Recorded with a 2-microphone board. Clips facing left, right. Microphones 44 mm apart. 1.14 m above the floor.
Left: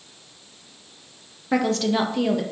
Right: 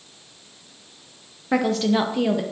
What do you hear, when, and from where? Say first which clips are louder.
1.5 s a woman speaking: right 1 dB; 5° right (ahead or behind), 0.8 m